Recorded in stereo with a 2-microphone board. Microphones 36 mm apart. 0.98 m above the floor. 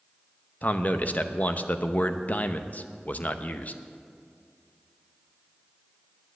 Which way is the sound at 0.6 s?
50° left (ahead or behind).